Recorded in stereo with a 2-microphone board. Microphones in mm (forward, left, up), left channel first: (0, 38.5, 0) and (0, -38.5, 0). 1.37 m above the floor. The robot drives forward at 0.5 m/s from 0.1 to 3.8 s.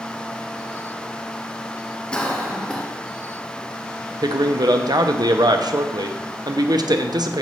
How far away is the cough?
About 0.5 m.